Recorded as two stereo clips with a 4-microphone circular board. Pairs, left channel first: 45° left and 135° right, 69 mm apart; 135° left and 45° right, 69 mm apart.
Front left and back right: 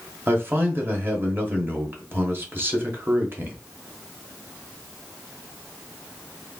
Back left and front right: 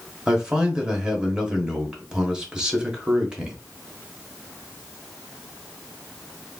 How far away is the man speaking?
About 0.9 m.